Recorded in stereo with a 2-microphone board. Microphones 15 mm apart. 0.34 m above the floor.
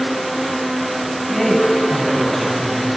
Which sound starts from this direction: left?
A man speaking, at 1.3 s.